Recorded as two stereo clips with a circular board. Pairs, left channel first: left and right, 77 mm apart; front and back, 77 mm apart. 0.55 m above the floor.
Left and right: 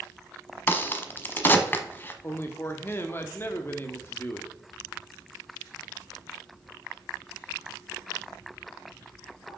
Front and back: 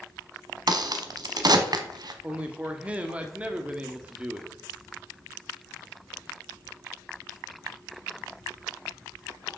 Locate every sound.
0.7 s a crack: 150° left, 0.9 m
2.2 s a man speaking: 120° left, 1.1 m